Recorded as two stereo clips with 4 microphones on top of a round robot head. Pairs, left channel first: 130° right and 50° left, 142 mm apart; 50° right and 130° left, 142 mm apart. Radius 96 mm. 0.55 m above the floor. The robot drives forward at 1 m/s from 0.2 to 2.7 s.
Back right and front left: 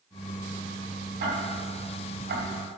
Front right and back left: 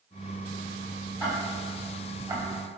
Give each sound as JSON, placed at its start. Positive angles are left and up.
{"t": 1.2, "sound": "ticking", "azimuth_deg": 45, "distance_m": 2.5}